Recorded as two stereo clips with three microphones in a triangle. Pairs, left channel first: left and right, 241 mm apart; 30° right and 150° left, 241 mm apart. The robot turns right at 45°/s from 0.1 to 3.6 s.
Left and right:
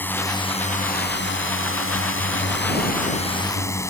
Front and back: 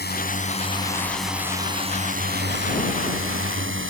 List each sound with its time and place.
0.0 s a drone: 10° left; by 3.9 s 165° left